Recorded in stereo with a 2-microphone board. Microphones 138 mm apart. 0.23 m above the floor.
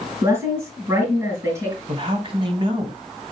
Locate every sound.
0.2 s a woman speaking: 25° right (ahead or behind), 4 m
1.9 s a man speaking: 40° right (ahead or behind), 1.9 m